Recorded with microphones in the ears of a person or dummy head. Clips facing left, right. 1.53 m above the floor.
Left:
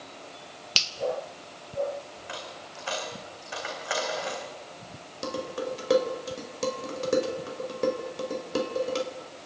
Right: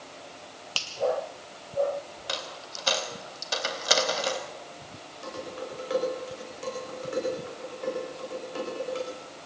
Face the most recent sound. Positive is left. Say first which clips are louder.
# left 5 dB
turn(degrees=70)  # may be behind; listen again after turning